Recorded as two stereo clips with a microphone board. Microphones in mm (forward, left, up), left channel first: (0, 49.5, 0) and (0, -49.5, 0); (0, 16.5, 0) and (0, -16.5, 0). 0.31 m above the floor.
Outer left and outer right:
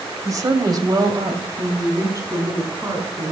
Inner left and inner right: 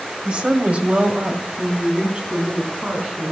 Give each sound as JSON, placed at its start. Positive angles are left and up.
{"t": 0.2, "sound": "a woman speaking", "side_deg": -35, "distance_m": 1.7}